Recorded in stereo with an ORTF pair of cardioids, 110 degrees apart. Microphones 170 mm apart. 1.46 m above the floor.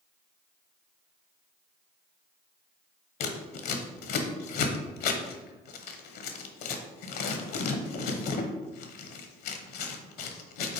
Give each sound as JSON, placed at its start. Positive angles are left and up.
{"t": 3.2, "sound": "scissors", "azimuth_deg": 70, "distance_m": 1.0}